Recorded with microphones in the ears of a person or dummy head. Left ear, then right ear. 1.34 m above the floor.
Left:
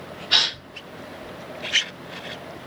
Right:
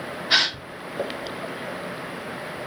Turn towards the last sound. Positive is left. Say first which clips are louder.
# left 1 dB
turn(degrees=-60)  # may be behind; listen again after turning